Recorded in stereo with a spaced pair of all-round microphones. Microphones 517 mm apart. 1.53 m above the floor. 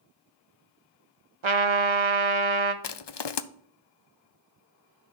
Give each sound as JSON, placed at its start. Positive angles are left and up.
{"t": 1.4, "sound": "a trumpet", "side_deg": -65, "distance_m": 0.8}
{"t": 2.8, "sound": "crushing", "side_deg": 55, "distance_m": 0.5}